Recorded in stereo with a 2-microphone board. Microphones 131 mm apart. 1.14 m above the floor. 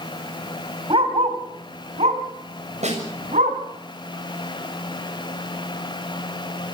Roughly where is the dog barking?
Right.